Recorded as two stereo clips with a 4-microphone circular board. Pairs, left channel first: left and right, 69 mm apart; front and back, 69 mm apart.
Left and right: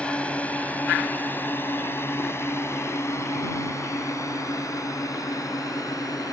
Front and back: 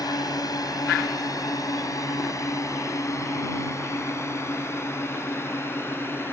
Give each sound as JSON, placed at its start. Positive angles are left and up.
{"t": 0.0, "sound": "a drone", "azimuth_deg": 20}